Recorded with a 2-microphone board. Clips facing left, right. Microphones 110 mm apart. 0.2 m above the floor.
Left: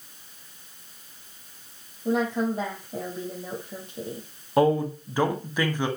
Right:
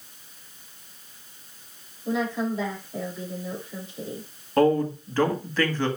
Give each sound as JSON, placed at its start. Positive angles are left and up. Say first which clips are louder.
{"t": 2.0, "sound": "a woman speaking", "louder": "left 2 dB", "side_deg": 55, "distance_m": 7.0}
{"t": 4.6, "sound": "a man speaking", "louder": "right 1 dB", "side_deg": 15, "distance_m": 1.6}